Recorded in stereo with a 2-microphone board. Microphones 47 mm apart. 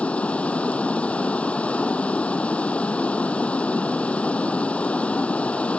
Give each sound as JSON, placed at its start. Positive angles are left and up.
{"t": 0.0, "sound": "running water", "side_deg": 25}